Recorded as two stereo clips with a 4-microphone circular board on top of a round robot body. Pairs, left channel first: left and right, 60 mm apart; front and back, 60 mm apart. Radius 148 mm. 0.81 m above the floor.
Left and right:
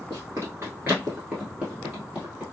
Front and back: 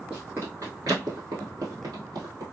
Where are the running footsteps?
110° right, 0.8 m; by 2.4 s 165° right, 1.6 m.